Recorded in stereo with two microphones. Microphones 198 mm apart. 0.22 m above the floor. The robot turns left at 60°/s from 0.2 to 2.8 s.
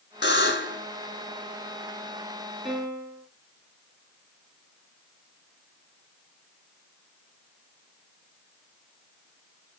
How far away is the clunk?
I don't hear a clunk.